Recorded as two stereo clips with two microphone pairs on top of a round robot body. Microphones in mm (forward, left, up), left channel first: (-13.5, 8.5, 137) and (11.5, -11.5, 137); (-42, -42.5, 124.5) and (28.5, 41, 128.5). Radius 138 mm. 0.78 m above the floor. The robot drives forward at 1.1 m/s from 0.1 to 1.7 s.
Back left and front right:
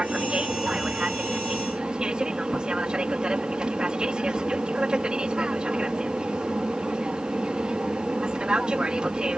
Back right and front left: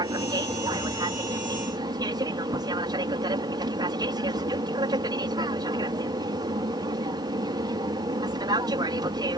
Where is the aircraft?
10° left.